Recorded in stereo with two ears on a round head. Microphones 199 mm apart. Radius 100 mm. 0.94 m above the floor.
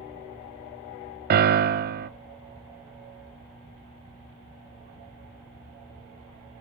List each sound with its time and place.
1.3 s a piano: 45° right (ahead or behind), 0.6 m